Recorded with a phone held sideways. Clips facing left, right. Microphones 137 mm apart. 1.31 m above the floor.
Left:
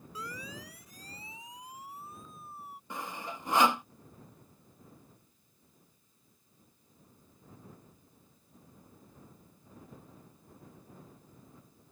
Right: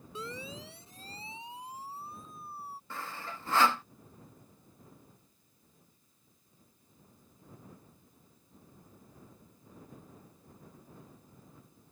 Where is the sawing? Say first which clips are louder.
Left 4 dB; 15° left (ahead or behind).